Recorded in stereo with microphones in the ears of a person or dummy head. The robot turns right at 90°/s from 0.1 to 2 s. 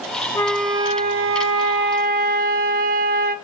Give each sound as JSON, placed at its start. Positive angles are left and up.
{"t": 0.3, "sound": "a flute", "azimuth_deg": 155, "distance_m": 0.8}